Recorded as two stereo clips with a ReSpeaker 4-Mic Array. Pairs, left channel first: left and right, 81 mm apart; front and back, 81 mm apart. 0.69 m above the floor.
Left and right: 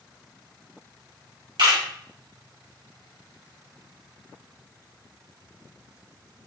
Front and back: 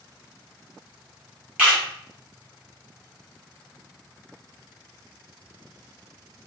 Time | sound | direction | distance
1.6 | a camera shutter | 105° right | 1.8 m